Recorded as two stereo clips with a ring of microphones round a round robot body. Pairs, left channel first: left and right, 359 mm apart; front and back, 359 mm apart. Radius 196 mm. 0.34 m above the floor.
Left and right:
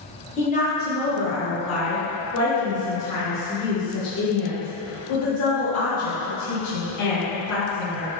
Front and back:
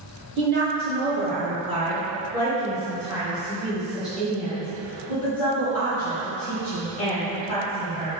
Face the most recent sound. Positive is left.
turn(degrees=80)